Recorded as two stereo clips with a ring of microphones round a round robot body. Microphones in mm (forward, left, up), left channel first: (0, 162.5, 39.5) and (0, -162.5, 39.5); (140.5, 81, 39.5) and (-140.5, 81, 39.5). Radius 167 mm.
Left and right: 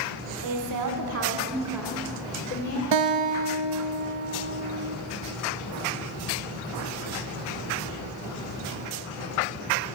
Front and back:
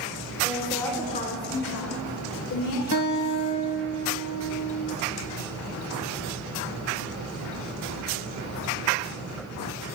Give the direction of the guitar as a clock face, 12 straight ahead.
2 o'clock.